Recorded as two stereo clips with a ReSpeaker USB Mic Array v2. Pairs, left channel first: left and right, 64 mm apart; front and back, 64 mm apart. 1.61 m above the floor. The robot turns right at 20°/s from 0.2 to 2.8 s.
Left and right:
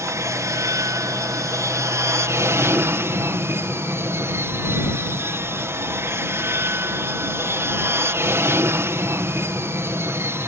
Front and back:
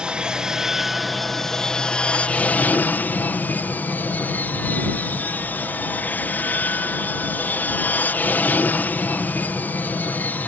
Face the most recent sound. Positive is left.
turn(degrees=-55)